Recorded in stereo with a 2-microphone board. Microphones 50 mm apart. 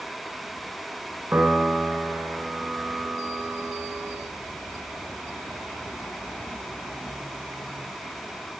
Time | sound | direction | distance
1.3 | a piano | 45° right (ahead or behind) | 1.2 m